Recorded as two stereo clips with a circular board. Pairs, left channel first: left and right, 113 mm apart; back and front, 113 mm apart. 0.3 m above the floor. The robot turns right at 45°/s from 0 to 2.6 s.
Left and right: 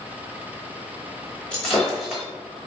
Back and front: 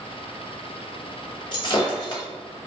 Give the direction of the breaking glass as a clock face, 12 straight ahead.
6 o'clock.